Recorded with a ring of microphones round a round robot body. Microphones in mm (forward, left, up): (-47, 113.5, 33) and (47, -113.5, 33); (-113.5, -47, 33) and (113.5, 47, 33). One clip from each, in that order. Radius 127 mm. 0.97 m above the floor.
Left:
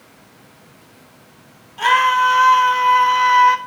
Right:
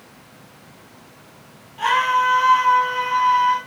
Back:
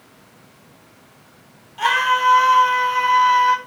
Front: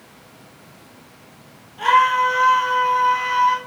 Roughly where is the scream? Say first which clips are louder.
Left 4 dB, front 2 dB; behind.